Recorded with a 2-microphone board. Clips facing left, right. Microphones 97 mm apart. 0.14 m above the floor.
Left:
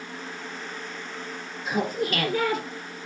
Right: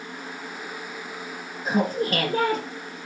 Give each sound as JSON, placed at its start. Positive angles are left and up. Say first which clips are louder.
{"t": 1.6, "sound": "laughter", "louder": "right 3 dB", "side_deg": -40, "distance_m": 3.0}